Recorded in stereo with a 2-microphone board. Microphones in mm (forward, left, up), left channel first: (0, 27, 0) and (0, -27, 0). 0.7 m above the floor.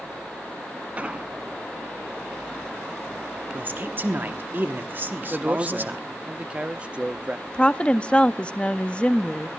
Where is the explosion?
25° right (ahead or behind), 1.0 m.